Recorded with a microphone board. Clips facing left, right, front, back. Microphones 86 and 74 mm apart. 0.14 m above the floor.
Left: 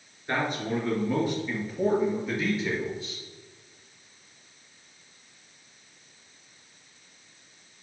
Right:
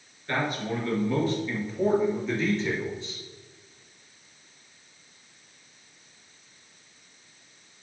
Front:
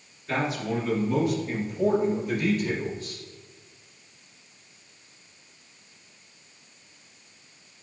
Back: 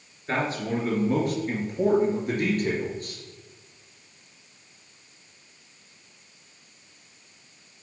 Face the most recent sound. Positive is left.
turn(degrees=180)